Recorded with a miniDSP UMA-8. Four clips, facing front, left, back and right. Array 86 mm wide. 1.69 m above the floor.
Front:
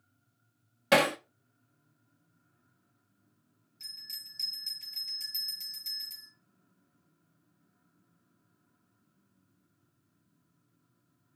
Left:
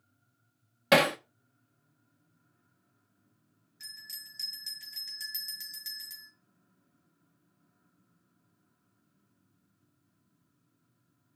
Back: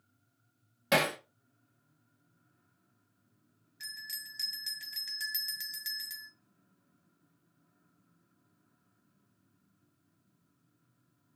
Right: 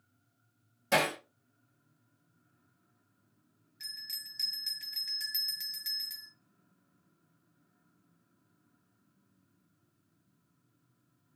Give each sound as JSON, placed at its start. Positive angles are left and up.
{"t": 0.9, "sound": "hammering", "azimuth_deg": 80, "distance_m": 1.6}
{"t": 3.8, "sound": "a bell", "azimuth_deg": -170, "distance_m": 4.5}